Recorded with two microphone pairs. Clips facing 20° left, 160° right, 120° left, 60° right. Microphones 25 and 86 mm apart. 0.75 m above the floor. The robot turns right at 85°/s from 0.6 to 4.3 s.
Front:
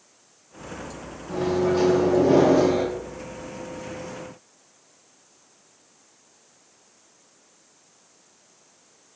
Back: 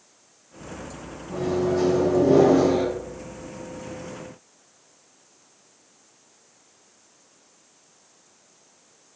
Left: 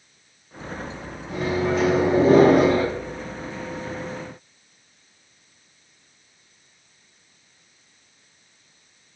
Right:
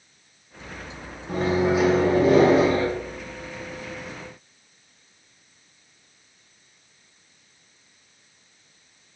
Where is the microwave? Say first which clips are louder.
Front 1 dB, right 2 dB; 20° right, 0.7 m; by 2.9 s 115° left, 0.7 m.